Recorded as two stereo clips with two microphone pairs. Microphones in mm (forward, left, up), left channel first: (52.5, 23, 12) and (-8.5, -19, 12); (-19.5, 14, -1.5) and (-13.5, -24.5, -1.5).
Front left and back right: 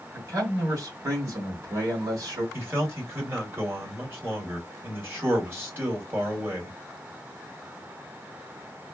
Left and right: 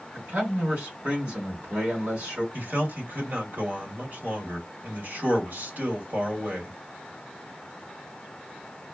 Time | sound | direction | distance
0.1 | a man speaking | 100° right | 2.5 m
2.5 | a man speaking | 95° right | 2.0 m